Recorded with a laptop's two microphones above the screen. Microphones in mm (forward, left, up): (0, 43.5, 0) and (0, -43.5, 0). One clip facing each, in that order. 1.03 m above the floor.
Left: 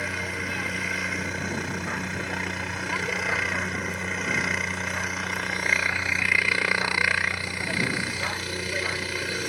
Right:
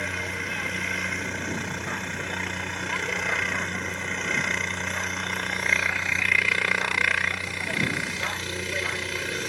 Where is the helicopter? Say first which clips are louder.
Even; 5° left (ahead or behind).